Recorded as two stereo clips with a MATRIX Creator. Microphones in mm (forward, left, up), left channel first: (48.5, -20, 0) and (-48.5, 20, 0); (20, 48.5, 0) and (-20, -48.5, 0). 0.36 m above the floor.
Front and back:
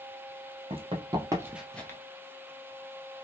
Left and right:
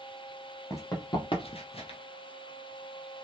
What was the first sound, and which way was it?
Running footsteps, 130° left.